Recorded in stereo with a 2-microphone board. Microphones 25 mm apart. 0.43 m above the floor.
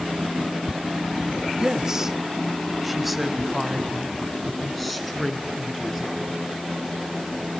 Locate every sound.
1.6 s a woman speaking: 30° right (ahead or behind), 0.8 m; by 6.4 s 5° left (ahead or behind), 5 m